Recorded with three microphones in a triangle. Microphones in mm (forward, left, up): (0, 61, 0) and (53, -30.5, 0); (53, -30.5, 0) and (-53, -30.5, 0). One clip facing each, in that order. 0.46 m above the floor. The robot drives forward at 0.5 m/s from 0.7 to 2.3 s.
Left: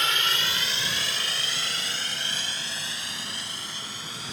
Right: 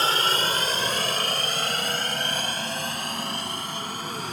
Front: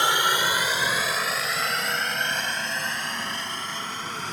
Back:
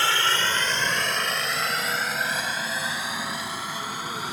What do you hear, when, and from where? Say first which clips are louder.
0.0 s a helicopter: right 5 dB, front 2 dB; 60° right; by 4.3 s 100° right